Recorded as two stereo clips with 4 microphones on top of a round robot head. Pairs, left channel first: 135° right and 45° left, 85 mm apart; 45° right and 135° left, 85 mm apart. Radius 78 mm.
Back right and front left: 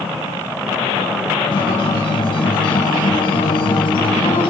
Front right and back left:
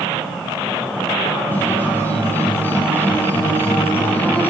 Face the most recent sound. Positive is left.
turn(degrees=-110)